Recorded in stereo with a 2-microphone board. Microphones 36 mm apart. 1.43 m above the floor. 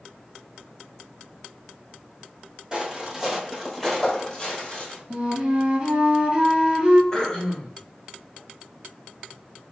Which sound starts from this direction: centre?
Throat clearing, at 7.1 s.